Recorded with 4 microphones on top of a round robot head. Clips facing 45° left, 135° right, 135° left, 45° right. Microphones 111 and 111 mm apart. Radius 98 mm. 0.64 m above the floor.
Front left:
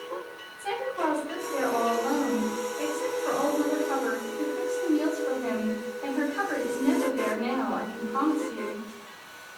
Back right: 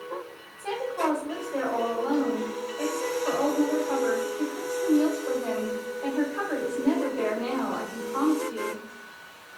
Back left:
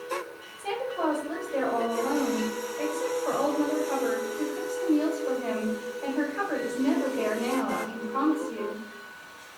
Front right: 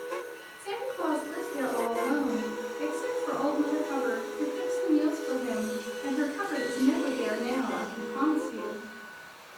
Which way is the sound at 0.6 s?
145° left.